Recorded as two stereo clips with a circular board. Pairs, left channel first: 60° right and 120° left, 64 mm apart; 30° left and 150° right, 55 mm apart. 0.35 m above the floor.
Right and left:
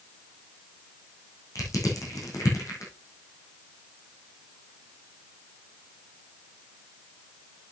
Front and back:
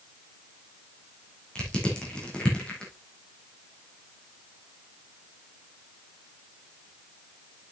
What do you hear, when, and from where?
1.6 s crushing: 40° right, 4 m